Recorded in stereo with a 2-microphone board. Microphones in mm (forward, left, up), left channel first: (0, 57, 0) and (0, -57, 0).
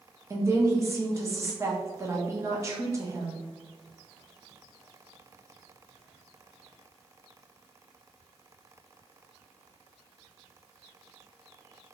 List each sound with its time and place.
0.3 s a woman speaking: 25° right (ahead or behind), 0.6 m